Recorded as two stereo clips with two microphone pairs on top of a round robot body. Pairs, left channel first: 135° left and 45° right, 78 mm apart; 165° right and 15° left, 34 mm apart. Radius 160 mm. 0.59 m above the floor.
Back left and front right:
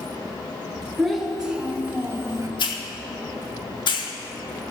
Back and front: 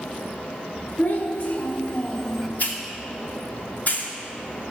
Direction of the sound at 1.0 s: 130° right.